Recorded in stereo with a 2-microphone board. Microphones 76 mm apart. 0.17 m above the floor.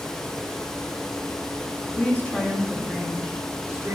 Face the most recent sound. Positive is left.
turn(degrees=-15)  # may be behind; listen again after turning